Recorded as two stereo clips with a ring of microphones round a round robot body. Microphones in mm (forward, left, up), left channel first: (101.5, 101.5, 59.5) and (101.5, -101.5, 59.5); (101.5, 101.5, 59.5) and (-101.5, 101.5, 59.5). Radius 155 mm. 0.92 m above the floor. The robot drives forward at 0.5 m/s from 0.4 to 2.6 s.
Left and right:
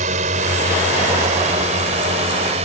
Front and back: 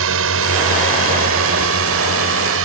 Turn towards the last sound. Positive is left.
turn(degrees=-160)